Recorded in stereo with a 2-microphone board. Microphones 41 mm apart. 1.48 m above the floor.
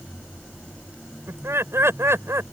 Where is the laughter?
80° right; by 2.4 s 85° right.